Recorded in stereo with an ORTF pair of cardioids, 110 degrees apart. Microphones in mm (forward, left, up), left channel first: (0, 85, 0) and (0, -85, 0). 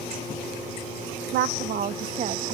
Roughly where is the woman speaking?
Right.